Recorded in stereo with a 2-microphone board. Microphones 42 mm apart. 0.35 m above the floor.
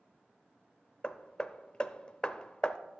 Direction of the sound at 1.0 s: 25° left (ahead or behind).